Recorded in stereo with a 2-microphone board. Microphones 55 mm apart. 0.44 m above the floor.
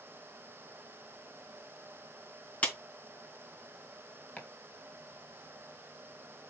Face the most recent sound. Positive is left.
turn(degrees=25)  # may be behind; listen again after turning